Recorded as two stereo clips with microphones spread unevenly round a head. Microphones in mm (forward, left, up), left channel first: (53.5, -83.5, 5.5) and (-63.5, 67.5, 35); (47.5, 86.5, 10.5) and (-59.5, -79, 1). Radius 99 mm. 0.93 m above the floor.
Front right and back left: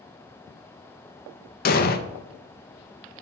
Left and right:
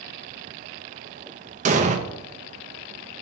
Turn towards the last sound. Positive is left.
turn(degrees=-75)